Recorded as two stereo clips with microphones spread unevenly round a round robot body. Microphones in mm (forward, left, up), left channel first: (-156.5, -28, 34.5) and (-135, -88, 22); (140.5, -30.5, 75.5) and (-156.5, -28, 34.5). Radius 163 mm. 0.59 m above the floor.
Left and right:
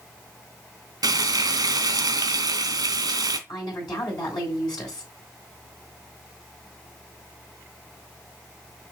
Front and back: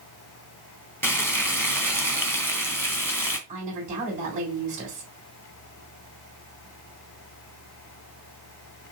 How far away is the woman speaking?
About 3 m.